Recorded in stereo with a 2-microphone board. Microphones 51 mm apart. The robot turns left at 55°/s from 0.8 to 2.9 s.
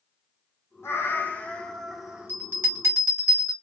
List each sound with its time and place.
0.8 s a cat meowing: 60° left, 0.6 m; by 2.3 s 20° right, 0.6 m
2.3 s a bell: 40° right (ahead or behind), 1.9 m; by 3.5 s 70° right (ahead or behind), 1.9 m